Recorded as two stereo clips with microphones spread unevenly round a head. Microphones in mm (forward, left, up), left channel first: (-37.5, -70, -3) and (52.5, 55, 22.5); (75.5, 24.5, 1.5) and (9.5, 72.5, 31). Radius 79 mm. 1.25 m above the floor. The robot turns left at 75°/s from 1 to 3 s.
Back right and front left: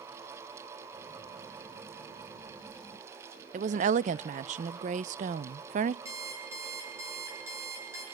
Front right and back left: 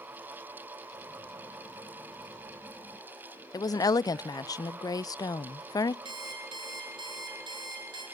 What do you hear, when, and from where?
3.5 s a woman speaking: 15° left, 0.5 m
6.0 s an alarm clock: 125° left, 6.5 m